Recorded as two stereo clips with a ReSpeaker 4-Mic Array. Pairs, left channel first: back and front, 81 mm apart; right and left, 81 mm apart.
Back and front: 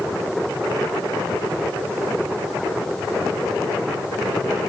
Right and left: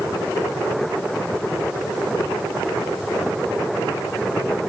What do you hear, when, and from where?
Only background noise.